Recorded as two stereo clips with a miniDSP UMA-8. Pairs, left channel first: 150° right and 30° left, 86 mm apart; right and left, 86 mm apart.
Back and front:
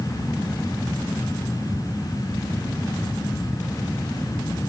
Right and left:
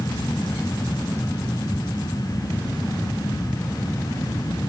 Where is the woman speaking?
I don't hear a woman speaking.